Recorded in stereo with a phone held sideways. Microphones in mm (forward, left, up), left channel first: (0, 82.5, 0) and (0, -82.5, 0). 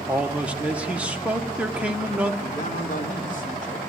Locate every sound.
0.1 s a man speaking: 5° right (ahead or behind), 1.0 m
2.4 s a man speaking: 50° left (ahead or behind), 2 m